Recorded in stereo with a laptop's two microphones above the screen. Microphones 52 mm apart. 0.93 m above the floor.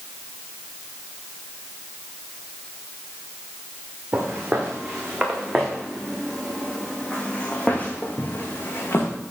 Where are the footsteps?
25° right (ahead or behind), 3.5 m; by 9.1 s 50° left (ahead or behind), 3 m.